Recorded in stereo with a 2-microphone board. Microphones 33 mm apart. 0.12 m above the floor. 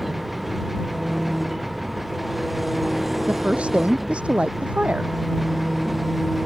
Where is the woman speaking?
30° right (ahead or behind).